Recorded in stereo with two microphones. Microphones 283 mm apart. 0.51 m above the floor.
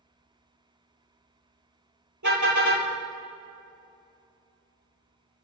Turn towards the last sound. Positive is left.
turn(degrees=-90)